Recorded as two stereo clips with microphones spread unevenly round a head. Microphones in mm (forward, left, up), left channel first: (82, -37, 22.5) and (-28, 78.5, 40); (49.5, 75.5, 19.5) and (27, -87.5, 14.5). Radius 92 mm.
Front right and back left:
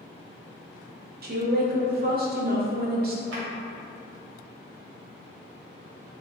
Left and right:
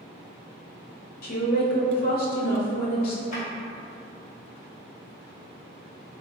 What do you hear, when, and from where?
1.2 s a woman speaking: 110° left, 0.7 m
3.3 s a drawer: 135° left, 1.0 m